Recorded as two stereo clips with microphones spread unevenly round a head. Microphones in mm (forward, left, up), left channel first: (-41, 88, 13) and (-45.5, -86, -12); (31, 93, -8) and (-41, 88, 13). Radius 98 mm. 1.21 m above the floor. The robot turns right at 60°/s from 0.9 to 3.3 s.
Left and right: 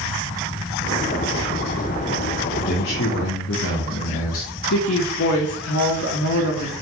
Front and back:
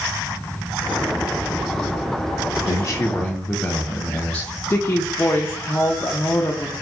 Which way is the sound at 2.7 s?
35° left.